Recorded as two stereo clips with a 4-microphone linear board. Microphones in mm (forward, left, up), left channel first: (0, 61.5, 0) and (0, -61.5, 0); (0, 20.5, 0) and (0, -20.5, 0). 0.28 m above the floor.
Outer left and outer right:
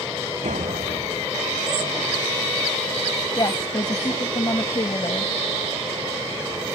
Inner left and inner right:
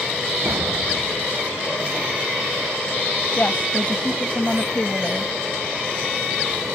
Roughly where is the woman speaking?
Left.